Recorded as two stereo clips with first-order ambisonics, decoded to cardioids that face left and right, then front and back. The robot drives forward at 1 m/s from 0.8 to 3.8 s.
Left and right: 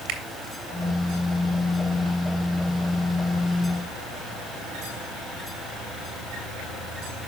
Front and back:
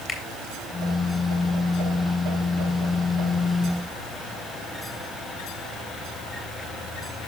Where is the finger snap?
70° right, 2.5 m.